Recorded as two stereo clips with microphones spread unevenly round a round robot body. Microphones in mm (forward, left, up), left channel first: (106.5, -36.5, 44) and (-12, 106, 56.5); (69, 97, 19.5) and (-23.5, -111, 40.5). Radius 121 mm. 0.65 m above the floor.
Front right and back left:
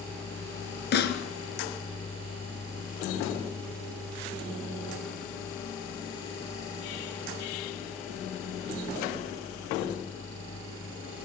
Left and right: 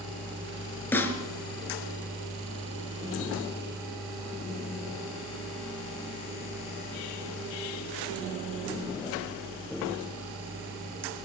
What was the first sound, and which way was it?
A snare drum, 15° right.